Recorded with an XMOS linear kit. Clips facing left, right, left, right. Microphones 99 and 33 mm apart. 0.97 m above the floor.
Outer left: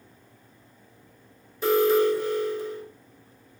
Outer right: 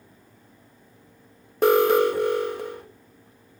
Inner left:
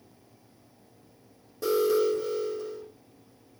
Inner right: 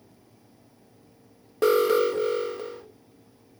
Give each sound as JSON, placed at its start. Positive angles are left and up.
{"t": 1.6, "sound": "an alarm", "side_deg": -60, "distance_m": 1.4}